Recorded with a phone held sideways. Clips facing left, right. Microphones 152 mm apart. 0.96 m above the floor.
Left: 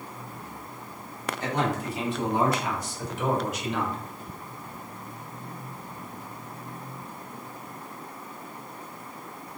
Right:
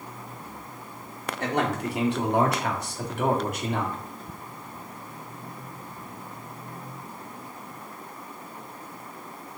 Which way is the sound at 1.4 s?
65° right (ahead or behind).